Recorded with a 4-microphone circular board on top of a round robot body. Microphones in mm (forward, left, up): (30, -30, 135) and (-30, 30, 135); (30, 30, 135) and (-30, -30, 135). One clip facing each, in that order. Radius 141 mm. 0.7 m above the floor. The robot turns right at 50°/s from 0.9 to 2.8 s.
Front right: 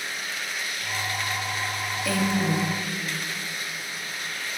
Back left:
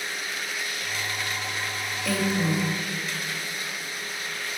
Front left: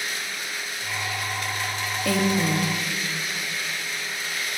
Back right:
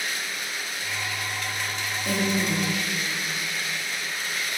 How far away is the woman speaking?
About 1.2 m.